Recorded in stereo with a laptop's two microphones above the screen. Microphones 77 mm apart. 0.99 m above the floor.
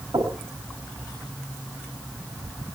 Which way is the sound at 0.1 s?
80° right.